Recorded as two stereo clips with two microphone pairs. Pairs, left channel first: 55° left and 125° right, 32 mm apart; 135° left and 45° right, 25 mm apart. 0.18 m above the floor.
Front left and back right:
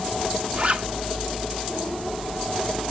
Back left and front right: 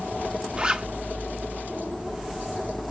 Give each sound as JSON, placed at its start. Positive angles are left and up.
{"t": 0.6, "sound": "a zipper", "azimuth_deg": -100, "distance_m": 1.2}